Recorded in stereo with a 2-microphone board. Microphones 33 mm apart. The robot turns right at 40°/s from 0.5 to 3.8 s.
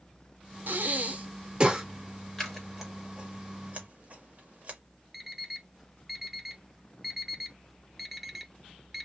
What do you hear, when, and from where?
0.7 s breathing: 60° right (ahead or behind), 0.7 m; by 1.9 s 15° right (ahead or behind), 0.7 m
2.4 s scissors: 10° left (ahead or behind), 1.3 m; by 4.8 s 45° right (ahead or behind), 1.3 m
5.1 s an alarm clock: 5° right (ahead or behind), 0.6 m